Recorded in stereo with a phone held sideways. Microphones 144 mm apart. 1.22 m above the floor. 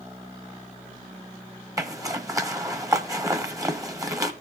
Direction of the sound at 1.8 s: 20° right (ahead or behind).